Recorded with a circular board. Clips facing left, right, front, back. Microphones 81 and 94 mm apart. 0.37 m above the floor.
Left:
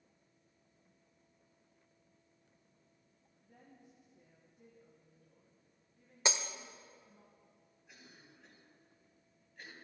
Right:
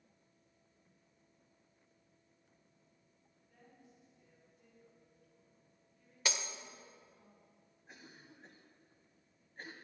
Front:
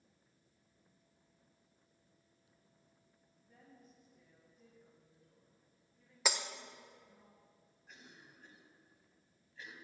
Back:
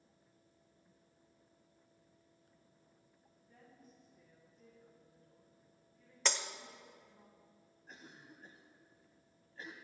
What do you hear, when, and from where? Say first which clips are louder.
3.4 s a woman speaking: left 2 dB, even; 80° left, 5 m
6.2 s breaking glass: left 3 dB, front 1 dB; 70° left, 0.6 m
7.9 s a cough: right 3 dB, back 3 dB; 135° right, 2 m